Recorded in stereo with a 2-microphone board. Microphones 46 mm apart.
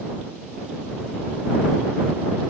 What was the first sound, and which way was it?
Only background noise.